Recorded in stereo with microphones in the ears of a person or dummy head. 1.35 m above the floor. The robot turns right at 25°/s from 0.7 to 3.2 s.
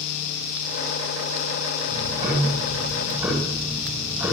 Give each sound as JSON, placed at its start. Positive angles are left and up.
{"t": 1.9, "sound": "ticking", "azimuth_deg": -35, "distance_m": 10.0}